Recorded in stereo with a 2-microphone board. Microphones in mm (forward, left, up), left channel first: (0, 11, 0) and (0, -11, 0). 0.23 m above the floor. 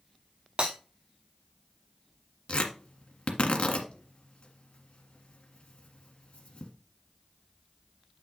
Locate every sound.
0.6 s breaking glass: 50° right (ahead or behind), 4 m
2.5 s tearing paper: 65° left (ahead or behind), 1.7 m